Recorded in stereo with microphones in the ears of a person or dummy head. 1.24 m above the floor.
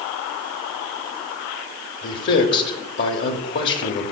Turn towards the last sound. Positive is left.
turn(degrees=60)  # may be behind; listen again after turning